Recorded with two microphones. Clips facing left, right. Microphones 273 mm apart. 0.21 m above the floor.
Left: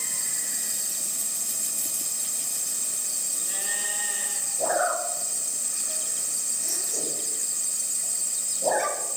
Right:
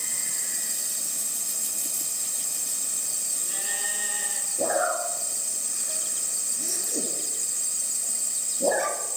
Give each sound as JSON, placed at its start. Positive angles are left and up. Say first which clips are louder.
{"t": 4.6, "sound": "a zipper", "louder": "right 1 dB", "side_deg": -50, "distance_m": 3.0}